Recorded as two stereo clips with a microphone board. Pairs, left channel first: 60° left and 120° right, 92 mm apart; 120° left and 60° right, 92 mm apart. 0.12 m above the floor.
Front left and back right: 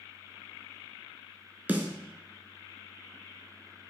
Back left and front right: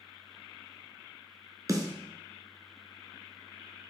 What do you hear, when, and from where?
1.7 s a snare drum: 60° right, 1.1 m